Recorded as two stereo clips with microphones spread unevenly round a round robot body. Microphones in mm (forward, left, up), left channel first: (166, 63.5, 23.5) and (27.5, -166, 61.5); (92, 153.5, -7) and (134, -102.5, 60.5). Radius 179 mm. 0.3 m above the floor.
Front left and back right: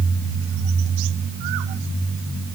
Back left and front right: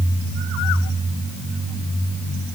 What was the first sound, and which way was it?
Only background noise.